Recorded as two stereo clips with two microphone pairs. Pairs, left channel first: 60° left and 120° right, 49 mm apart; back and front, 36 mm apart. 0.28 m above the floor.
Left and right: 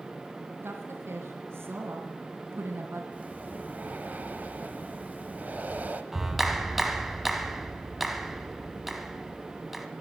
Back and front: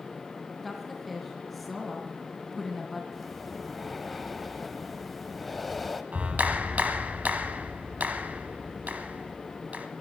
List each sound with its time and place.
0.6 s a woman speaking: 95° right, 2.5 m
3.1 s breathing: 90° right, 1.1 m
6.1 s a clap: 30° right, 1.4 m